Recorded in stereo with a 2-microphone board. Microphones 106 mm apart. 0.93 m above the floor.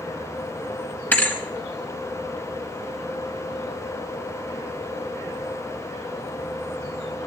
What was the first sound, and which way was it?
A thud, 15° left (ahead or behind).